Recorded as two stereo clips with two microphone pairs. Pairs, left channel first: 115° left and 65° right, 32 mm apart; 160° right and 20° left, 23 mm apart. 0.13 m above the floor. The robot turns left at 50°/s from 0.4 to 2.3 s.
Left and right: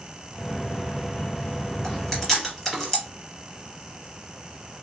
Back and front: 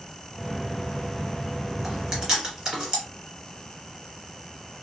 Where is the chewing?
55° left, 1.8 m; by 3.0 s 35° left, 1.8 m.